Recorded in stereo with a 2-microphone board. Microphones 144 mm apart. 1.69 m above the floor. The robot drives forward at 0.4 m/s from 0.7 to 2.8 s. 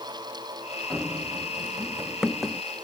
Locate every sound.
0.9 s running footsteps: centre (ahead or behind)